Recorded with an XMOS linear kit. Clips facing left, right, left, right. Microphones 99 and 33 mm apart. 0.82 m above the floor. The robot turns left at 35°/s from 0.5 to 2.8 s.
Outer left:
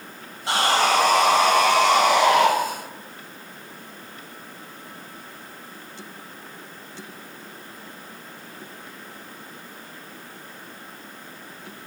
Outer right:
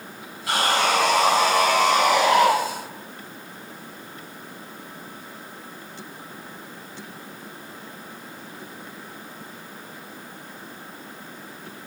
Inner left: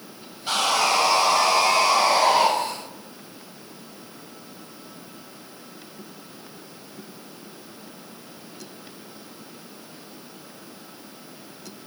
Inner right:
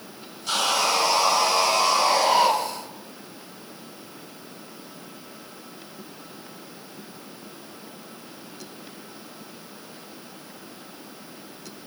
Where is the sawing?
155° left, 6 m; by 2.5 s 85° left, 6 m.